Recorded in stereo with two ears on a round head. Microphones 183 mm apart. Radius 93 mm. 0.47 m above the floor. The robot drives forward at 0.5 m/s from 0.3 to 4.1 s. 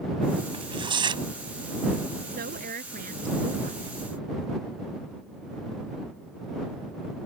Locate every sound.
0.5 s tearing paper: 25° right (ahead or behind)
2.3 s a woman speaking: 50° right (ahead or behind); by 3.8 s 45° right (ahead or behind)